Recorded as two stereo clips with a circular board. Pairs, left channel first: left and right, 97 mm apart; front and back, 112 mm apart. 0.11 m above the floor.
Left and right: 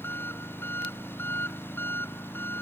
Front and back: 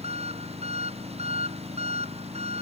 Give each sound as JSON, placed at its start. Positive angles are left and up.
{"t": 0.0, "sound": "an engine running", "azimuth_deg": 160}